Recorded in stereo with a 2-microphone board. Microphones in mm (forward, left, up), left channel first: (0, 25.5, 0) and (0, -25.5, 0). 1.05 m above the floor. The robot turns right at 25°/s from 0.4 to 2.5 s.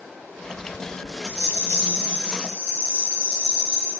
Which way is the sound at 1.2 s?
90° left.